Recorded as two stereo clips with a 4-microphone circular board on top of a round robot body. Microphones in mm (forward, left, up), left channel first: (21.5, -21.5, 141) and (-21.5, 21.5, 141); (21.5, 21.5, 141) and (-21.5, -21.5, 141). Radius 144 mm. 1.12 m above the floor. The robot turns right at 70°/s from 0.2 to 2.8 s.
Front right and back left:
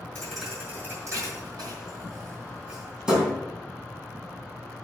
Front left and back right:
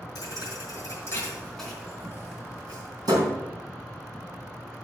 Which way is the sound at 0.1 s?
30° left.